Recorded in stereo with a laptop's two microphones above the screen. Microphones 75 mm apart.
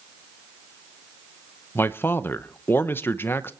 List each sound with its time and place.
1.8 s a man speaking: 30° left (ahead or behind), 0.7 m